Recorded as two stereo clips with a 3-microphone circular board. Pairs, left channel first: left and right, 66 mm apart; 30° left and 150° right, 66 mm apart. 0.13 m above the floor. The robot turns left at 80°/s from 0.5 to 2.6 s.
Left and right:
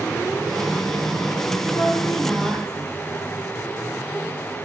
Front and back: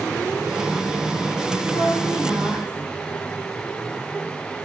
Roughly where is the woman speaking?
Ahead left.